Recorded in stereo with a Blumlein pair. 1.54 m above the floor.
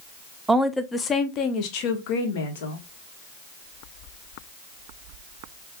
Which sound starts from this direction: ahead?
A woman speaking, at 0.5 s.